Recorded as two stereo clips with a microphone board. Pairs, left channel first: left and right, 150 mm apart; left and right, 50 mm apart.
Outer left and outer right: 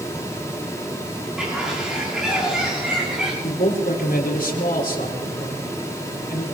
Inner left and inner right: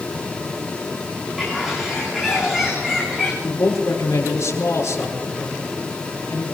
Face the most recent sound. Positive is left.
turn(degrees=65)  # may be behind; listen again after turning